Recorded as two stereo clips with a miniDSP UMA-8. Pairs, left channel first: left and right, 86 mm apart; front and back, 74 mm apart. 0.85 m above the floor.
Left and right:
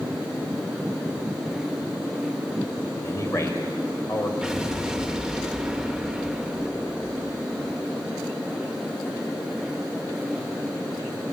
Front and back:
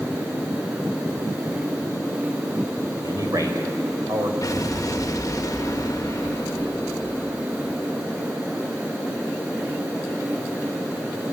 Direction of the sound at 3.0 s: 145° left.